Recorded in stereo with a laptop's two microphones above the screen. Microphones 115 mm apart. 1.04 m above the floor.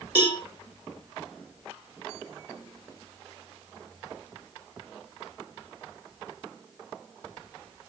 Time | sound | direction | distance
0.1 | a cowbell | 20° right (ahead or behind) | 3.5 m